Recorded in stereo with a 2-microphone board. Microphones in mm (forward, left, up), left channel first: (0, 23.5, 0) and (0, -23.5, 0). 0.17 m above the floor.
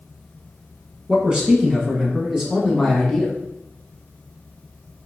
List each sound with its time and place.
1.1 s a man speaking: 25° right (ahead or behind), 1.2 m; by 3.4 s centre (ahead or behind), 1.1 m